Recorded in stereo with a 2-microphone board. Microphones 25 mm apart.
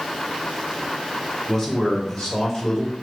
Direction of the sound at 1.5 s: 5° right (ahead or behind).